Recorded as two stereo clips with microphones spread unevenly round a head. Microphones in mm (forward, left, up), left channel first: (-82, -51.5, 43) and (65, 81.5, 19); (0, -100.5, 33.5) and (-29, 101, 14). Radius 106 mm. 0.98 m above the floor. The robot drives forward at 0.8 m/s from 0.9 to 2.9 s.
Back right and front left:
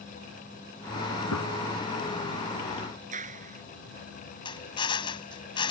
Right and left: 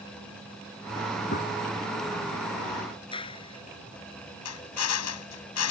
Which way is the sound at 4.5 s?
70° right.